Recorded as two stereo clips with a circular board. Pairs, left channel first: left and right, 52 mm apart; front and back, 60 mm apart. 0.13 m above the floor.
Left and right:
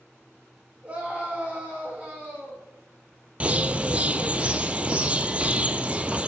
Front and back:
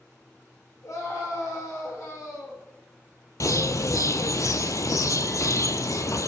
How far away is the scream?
About 8 m.